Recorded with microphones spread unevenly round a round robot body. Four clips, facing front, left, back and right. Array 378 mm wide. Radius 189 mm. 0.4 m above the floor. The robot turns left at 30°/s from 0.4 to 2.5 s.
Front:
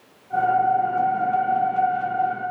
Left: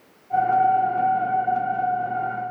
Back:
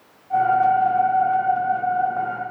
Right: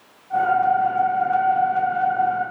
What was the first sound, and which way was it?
Only background noise.